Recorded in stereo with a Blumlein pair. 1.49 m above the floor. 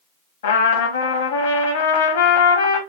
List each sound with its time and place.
0.4 s a trumpet: 60° left, 0.7 m